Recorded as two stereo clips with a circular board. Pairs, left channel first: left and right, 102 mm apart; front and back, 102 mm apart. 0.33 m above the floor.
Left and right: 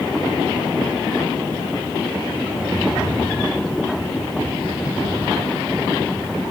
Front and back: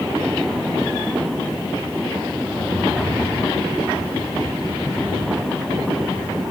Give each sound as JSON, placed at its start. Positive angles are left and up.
{"t": 2.5, "sound": "a rattle", "azimuth_deg": 5, "distance_m": 1.9}